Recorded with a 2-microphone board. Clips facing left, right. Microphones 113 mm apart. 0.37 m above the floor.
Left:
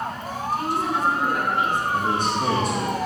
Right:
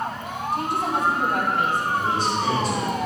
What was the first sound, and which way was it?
A woman speaking, 60° right (ahead or behind).